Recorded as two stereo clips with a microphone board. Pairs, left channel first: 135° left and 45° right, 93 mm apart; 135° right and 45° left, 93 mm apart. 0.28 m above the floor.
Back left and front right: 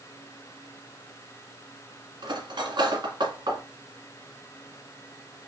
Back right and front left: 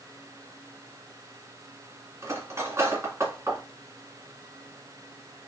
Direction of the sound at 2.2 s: 15° right.